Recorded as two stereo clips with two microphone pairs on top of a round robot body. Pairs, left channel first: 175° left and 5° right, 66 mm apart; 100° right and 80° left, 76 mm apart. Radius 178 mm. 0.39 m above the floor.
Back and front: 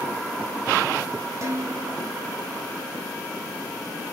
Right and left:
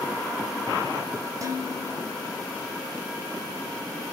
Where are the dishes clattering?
40° left, 2.5 m.